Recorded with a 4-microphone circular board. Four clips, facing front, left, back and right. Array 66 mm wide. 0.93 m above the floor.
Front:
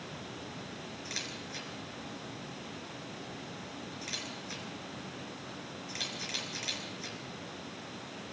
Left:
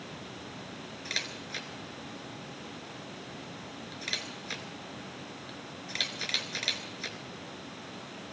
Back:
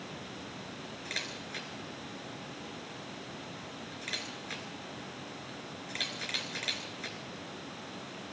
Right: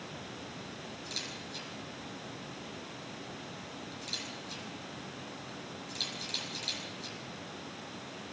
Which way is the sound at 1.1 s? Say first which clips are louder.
Left 8 dB, back 4 dB; 110° left.